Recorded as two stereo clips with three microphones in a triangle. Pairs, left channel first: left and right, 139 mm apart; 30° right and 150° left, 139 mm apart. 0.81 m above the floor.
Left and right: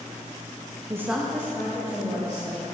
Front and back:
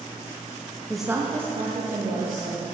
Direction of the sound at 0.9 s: 100° right.